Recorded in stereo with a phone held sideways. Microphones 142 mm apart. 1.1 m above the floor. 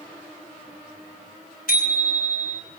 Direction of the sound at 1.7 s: 90° left.